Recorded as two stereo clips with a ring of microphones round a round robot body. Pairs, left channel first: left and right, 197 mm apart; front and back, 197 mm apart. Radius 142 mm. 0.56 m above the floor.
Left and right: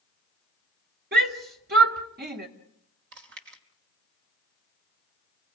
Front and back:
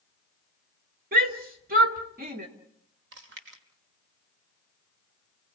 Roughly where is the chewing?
Behind right.